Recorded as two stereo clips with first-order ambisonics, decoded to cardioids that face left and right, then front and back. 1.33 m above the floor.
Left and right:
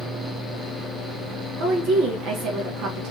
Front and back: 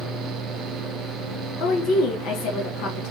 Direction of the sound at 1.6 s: 40° right.